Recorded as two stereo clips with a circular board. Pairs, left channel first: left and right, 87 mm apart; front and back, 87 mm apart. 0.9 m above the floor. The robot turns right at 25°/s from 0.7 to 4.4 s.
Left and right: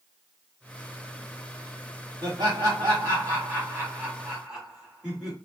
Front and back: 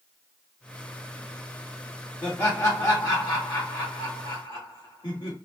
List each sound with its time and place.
2.2 s laughter: 65° right, 1.6 m; by 5.4 s 10° right, 1.6 m